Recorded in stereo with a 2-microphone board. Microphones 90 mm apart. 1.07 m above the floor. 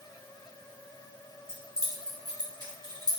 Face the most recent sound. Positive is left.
turn(degrees=-55)  # may be behind; listen again after turning